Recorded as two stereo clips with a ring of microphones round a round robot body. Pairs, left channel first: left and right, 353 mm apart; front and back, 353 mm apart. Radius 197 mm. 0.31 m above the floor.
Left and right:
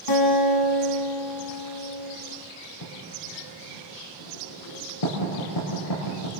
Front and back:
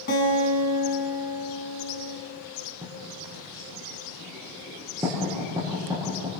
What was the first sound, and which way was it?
A guitar, 65° left.